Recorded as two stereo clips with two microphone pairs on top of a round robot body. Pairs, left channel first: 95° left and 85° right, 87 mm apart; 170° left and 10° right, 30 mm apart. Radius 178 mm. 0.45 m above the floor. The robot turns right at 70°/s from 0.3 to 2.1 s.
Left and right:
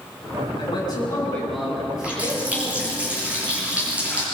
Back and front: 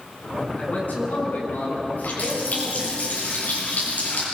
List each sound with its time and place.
0.6 s a man speaking: 115° left, 8 m; by 3.0 s 135° right, 8 m
2.0 s a running tap: 170° right, 8.5 m; by 4.2 s 160° right, 8.5 m